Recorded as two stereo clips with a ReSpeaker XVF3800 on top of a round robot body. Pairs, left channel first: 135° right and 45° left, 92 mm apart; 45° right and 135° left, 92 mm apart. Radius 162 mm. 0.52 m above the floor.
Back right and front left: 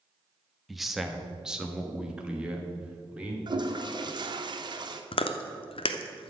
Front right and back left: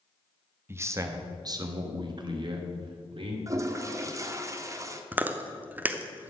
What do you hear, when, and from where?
0.7 s a man speaking: 135° left, 1.3 m; by 3.4 s 120° left, 2.5 m
3.5 s a toilet flushing: 80° left, 1.1 m
5.1 s chewing: 155° right, 0.8 m